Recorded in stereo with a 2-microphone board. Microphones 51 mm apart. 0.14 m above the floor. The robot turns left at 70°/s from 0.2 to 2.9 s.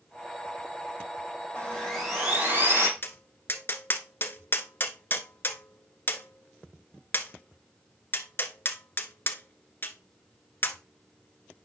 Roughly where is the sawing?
Ahead left.